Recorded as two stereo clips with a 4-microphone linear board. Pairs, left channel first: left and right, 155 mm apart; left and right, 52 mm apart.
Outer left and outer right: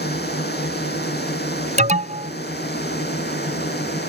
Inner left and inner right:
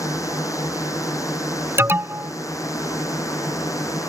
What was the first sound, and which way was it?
A drone, 80° left.